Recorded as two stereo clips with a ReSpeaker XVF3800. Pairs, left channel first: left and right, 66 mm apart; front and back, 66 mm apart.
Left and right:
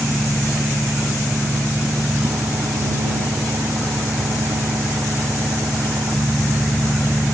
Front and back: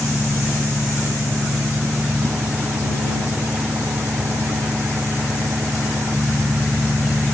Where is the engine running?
120° right.